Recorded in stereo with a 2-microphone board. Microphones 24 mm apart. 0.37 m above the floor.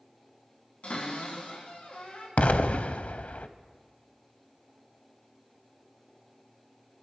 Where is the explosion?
75° left (ahead or behind), 0.6 m.